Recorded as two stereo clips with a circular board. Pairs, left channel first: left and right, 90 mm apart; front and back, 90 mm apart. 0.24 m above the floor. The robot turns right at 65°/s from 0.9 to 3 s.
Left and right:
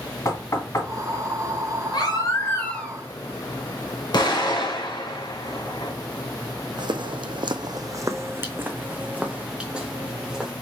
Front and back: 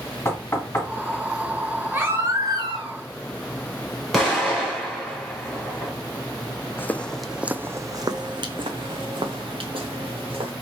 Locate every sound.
0.2 s knocking: 50° left, 1.6 m
1.9 s a baby crying: 110° left, 2 m; by 3.0 s 175° left, 2 m
4.1 s an explosion: 90° left, 2.5 m
6.8 s footsteps: 65° right, 0.6 m; by 10.5 s 175° right, 1.7 m